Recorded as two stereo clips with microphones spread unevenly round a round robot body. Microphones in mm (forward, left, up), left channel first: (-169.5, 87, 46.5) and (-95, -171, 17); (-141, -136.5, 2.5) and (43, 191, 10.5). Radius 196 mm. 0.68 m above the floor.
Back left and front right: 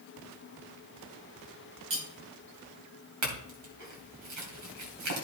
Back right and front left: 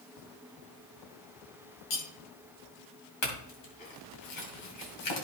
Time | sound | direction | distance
1.9 | cutlery clinking | 110° right | 2.5 m
3.2 | a clink | 75° right | 3 m